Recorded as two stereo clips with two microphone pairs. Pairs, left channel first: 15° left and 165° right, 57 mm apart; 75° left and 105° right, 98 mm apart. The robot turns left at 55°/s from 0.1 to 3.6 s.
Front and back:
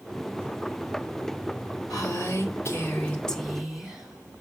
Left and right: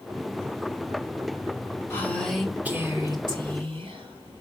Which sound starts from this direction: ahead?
A woman speaking, at 1.9 s.